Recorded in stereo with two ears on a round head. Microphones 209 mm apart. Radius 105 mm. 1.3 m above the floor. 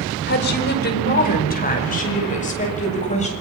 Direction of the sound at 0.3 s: 50° left (ahead or behind).